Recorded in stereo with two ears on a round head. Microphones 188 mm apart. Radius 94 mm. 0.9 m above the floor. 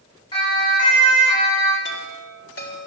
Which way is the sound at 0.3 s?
25° left (ahead or behind).